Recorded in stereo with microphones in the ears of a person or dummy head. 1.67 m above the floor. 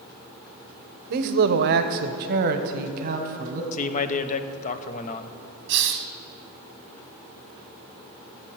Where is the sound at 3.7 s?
40° left (ahead or behind), 0.9 m.